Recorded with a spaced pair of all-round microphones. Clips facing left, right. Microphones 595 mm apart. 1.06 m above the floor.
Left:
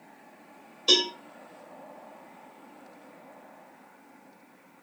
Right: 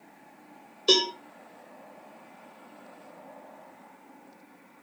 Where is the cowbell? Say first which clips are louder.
Right 3 dB; 25° left (ahead or behind), 1.9 m.